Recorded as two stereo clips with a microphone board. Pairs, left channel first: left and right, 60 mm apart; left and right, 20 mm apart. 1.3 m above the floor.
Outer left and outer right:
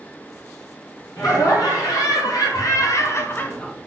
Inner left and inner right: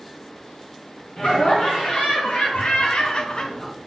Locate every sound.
1.2 s laughter: 85° left, 1.3 m; by 3.7 s 10° left (ahead or behind), 0.5 m